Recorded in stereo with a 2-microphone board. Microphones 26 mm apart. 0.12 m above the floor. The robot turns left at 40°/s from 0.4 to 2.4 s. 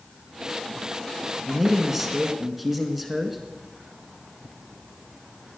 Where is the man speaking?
15° right (ahead or behind), 1.4 m; by 3.4 s 5° right (ahead or behind), 1.4 m.